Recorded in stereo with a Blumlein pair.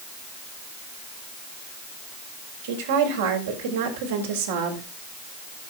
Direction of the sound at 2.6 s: 60° right.